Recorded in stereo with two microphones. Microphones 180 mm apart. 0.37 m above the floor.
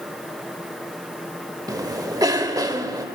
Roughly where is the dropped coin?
I don't hear a dropped coin.